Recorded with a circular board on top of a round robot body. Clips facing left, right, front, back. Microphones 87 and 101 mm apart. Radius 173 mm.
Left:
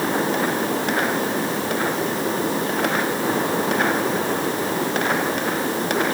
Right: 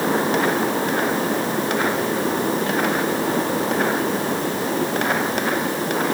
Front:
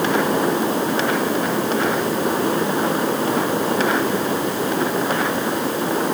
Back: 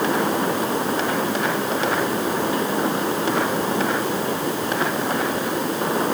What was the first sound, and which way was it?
Only background noise.